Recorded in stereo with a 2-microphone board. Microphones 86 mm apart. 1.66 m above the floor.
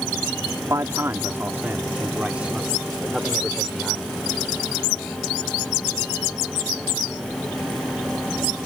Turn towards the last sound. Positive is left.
turn(degrees=0)  # may be behind; listen again after turning